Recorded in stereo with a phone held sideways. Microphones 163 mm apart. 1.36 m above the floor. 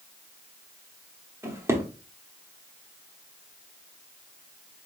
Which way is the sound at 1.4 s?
15° right (ahead or behind).